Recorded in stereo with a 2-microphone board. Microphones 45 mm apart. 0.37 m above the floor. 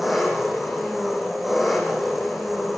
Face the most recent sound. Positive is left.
turn(degrees=-5)  # may be behind; listen again after turning